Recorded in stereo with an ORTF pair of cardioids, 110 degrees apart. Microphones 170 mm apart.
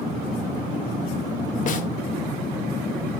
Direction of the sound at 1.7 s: 45° left.